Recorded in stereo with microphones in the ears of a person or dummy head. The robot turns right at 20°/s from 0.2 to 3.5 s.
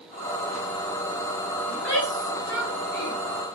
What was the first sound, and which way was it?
A shout, 60° left (ahead or behind).